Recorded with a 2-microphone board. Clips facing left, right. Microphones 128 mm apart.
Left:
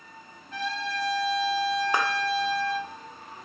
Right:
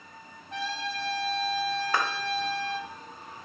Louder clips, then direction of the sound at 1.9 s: Even; 20° left (ahead or behind).